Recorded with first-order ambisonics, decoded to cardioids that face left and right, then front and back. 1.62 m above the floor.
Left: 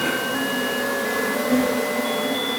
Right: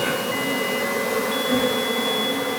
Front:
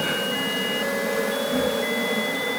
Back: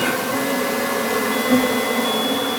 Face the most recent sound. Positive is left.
turn(degrees=170)